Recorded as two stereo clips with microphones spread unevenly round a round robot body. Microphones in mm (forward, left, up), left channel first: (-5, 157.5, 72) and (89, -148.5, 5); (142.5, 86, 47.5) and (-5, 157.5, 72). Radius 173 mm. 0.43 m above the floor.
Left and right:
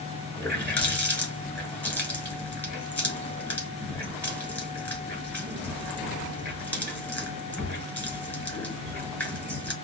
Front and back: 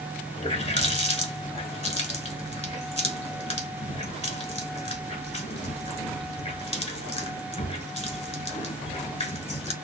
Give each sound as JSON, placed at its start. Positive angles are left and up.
{"t": 0.4, "sound": "a running tap", "azimuth_deg": 20, "distance_m": 1.7}